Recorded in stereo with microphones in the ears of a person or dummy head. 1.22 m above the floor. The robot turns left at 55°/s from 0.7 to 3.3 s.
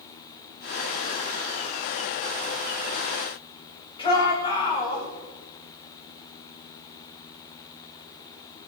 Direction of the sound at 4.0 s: 25° left (ahead or behind).